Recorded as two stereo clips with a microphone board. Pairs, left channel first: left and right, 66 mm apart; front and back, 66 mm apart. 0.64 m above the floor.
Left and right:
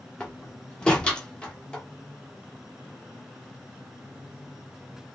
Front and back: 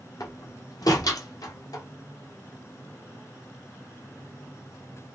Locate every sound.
0.2 s a door slam: 15° left, 1.1 m